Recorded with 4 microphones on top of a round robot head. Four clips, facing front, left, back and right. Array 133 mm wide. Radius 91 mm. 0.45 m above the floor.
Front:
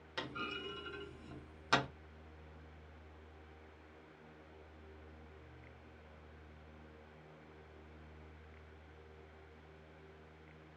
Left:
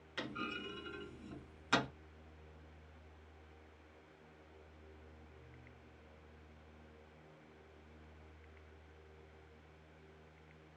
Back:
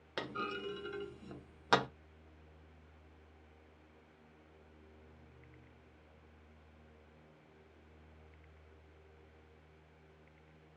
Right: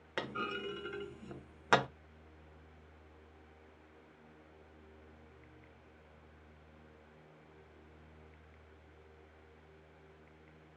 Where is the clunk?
120° right, 0.8 m.